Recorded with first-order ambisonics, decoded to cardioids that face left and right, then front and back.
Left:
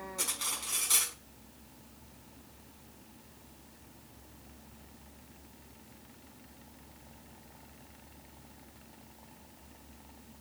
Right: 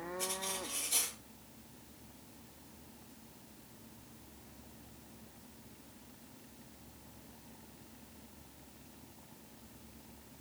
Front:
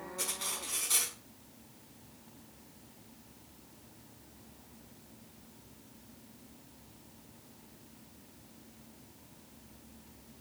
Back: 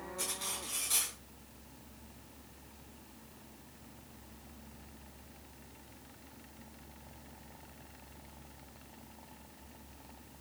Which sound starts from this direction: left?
Cutlery clinking, at 0.2 s.